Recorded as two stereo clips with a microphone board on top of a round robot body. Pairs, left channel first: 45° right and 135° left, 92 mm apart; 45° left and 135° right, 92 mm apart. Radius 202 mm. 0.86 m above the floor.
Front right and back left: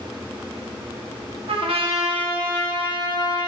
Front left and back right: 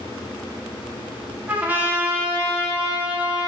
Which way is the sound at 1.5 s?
150° left.